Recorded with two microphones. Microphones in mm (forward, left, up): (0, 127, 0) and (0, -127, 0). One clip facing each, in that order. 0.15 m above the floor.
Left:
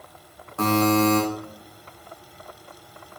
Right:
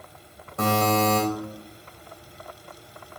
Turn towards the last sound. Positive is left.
turn(degrees=-20)  # may be behind; listen again after turning